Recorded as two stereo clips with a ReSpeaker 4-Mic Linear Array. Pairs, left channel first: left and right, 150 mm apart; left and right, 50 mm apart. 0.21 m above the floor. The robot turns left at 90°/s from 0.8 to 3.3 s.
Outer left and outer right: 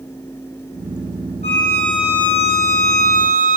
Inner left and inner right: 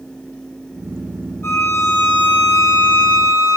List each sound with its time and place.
1.4 s a violin: 45° left, 2.5 m; by 3.6 s 120° right, 2.5 m